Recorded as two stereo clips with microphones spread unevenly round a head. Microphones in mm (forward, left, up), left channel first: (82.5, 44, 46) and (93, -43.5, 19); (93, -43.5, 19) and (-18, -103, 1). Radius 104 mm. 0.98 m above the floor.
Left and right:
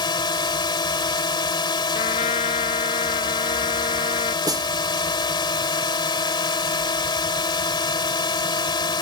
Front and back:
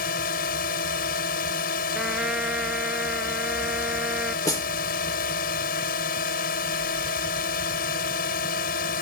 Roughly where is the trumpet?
Behind left.